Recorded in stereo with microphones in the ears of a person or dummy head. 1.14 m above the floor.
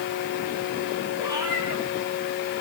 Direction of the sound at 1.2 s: 30° right (ahead or behind).